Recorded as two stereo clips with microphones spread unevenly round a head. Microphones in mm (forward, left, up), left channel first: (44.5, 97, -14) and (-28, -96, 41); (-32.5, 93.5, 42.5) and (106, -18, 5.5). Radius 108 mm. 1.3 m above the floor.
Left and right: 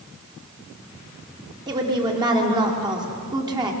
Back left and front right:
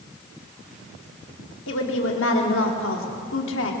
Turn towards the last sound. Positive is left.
turn(degrees=180)